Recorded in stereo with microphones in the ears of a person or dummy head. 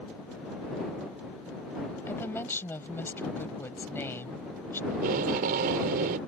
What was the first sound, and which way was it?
A woman speaking, 10° left (ahead or behind).